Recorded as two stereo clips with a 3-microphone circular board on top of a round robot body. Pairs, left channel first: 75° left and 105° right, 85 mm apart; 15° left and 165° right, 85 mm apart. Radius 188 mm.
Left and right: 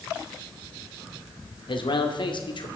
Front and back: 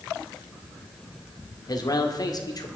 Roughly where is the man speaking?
Ahead left.